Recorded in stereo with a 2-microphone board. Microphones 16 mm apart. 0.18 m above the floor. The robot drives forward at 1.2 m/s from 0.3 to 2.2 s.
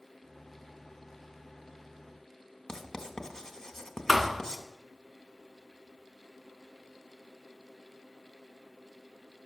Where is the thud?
10° right (ahead or behind), 0.8 m.